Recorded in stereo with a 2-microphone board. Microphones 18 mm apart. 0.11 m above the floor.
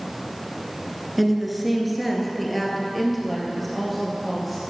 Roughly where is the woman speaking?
Centre.